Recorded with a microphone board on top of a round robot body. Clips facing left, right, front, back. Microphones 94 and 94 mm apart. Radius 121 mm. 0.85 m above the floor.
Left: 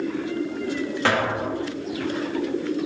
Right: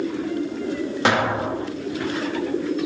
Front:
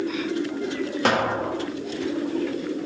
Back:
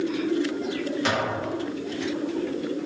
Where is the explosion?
20° right, 1.6 m.